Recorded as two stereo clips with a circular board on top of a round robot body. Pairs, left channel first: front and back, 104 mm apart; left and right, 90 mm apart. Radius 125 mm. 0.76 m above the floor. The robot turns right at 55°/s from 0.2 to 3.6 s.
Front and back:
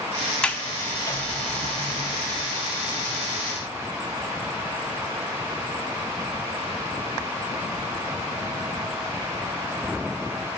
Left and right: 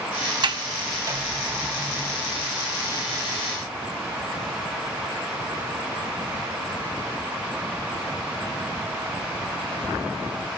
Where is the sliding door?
80° right, 0.9 m; by 2.6 s 40° left, 0.9 m.